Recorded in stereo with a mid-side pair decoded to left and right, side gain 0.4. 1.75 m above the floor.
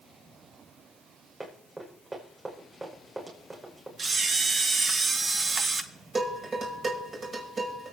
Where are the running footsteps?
25° right, 7 m.